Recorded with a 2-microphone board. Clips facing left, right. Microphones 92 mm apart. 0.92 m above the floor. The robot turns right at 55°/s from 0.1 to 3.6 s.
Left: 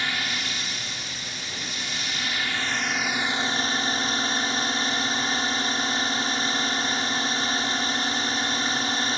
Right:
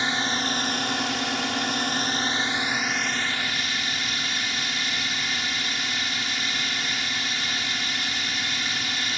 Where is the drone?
155° right; by 9.2 s 35° left.